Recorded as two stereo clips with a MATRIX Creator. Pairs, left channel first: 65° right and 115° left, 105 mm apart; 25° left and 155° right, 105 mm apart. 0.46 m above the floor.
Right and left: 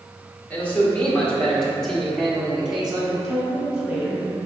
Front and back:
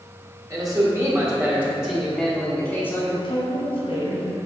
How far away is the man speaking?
About 1.7 m.